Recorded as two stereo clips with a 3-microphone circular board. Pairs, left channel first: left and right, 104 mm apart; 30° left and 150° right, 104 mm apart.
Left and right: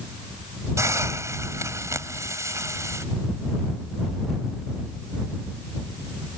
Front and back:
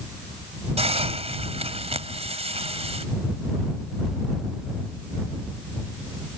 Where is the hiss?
150° right.